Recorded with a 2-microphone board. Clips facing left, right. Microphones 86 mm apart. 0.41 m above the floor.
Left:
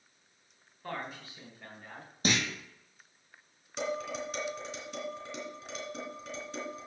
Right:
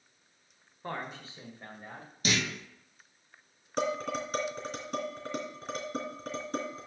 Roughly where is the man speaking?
Right.